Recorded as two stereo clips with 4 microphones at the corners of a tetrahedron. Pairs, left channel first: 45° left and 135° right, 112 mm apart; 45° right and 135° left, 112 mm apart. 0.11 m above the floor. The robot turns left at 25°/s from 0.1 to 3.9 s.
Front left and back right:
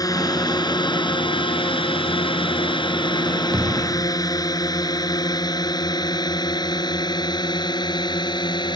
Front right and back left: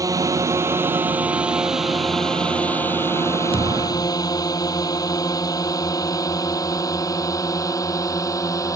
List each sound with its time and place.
0.0 s a drone: 90° left; by 8.8 s 10° left
3.5 s a thud: 80° right; by 4.2 s 90° right